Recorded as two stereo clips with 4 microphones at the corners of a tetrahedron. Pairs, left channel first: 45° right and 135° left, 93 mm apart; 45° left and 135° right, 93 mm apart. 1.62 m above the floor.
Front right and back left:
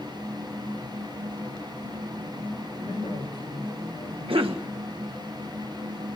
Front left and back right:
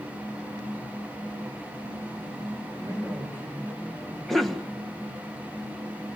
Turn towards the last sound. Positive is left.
turn(degrees=135)